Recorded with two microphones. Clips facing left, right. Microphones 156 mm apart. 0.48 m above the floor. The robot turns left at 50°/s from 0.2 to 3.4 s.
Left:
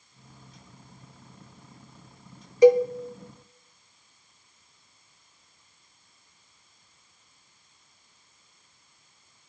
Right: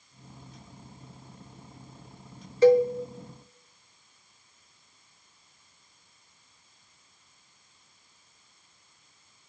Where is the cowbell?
15° left (ahead or behind), 0.7 m; by 2.9 s 20° left (ahead or behind), 0.7 m.